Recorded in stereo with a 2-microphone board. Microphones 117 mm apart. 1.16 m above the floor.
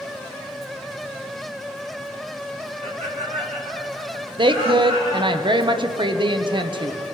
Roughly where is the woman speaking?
Right.